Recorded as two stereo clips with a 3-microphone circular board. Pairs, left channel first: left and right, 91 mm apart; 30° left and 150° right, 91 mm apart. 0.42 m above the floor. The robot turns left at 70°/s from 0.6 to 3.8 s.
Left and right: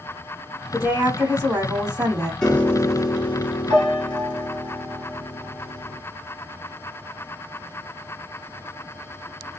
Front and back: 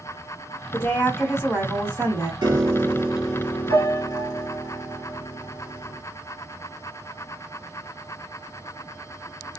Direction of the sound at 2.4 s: 175° left.